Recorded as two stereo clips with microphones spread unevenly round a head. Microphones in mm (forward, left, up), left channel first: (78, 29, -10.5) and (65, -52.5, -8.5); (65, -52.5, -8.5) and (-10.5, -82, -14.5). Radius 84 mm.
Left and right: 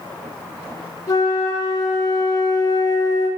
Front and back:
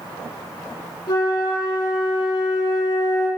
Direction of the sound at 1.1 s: 45° left.